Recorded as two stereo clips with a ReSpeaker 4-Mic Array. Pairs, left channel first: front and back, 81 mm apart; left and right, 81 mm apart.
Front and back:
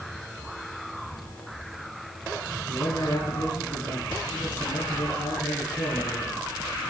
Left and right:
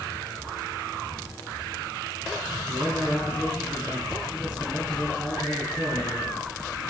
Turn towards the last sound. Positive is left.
turn(degrees=-15)